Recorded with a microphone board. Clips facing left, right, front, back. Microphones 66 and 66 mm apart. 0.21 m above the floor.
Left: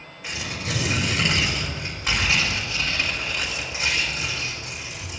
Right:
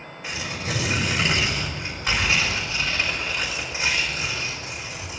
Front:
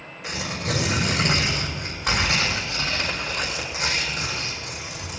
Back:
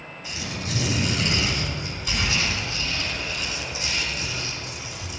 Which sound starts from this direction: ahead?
Tearing paper, at 0.2 s.